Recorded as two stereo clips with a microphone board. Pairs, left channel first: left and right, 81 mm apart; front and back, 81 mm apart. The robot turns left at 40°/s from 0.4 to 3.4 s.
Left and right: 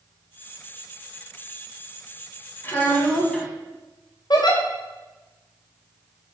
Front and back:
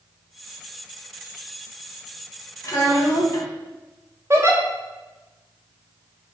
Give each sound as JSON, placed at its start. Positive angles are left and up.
{"t": 2.6, "sound": "a child speaking", "azimuth_deg": 35, "distance_m": 0.8}
{"t": 4.3, "sound": "a giggle", "azimuth_deg": 125, "distance_m": 0.6}